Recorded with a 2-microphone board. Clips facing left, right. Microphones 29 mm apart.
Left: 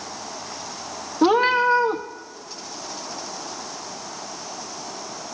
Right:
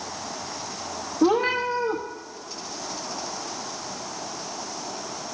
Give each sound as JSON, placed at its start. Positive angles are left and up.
{"t": 1.2, "sound": "a cat meowing", "side_deg": 80, "distance_m": 1.0}